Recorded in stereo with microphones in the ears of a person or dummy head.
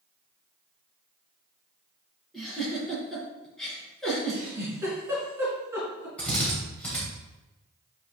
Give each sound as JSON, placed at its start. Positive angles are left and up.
{"t": 2.3, "sound": "a giggle", "side_deg": 0, "distance_m": 3.0}
{"t": 4.3, "sound": "a giggle", "side_deg": -15, "distance_m": 3.5}
{"t": 6.2, "sound": "a drill", "side_deg": 10, "distance_m": 3.0}